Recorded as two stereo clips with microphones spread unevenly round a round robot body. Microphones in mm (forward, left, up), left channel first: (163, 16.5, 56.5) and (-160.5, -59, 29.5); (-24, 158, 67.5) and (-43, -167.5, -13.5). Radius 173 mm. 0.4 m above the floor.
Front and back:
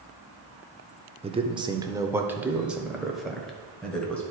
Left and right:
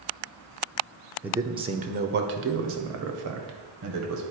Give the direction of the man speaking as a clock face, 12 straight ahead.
5 o'clock.